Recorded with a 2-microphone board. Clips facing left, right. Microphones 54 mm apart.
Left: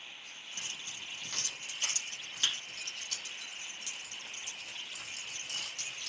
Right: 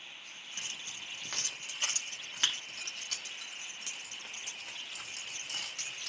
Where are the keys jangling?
30° right (ahead or behind), 2.5 m; by 6.1 s 85° right, 5 m.